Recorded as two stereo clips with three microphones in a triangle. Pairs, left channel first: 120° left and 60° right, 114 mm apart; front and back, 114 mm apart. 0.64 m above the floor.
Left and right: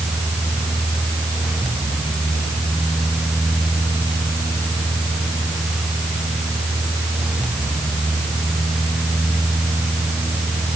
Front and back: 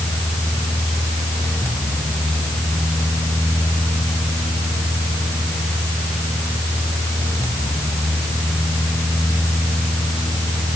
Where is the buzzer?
I don't hear a buzzer.